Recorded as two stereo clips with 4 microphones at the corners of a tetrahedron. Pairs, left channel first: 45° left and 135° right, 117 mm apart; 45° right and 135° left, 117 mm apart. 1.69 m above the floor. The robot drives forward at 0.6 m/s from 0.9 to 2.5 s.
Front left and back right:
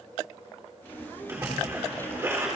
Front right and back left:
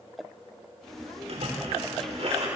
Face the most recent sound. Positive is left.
turn(degrees=160)